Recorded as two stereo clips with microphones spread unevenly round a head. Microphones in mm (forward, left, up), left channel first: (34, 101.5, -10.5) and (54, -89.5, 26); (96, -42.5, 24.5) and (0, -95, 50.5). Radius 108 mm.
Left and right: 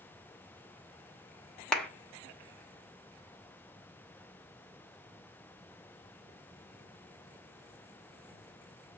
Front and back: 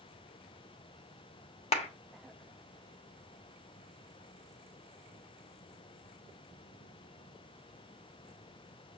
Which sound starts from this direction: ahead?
A clap, at 1.7 s.